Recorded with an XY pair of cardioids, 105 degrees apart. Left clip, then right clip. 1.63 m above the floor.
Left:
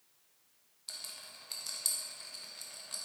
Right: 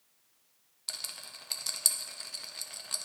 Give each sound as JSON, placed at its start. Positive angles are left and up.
{"t": 0.9, "sound": "a rattle", "azimuth_deg": -50, "distance_m": 0.8}